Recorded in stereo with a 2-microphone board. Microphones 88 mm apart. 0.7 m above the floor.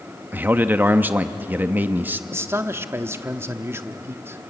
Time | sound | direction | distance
0.3 | a man speaking | 20° right (ahead or behind) | 0.7 m
2.3 | a man speaking | 30° right (ahead or behind) | 1.1 m